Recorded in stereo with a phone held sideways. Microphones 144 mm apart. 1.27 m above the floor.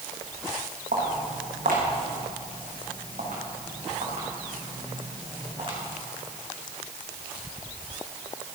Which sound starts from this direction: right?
Footsteps, at 0.9 s.